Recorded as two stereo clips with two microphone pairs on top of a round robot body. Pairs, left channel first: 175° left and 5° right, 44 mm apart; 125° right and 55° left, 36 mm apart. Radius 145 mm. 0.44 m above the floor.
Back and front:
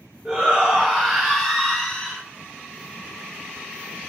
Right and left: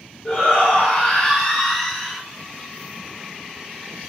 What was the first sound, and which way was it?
A shout, 80° right.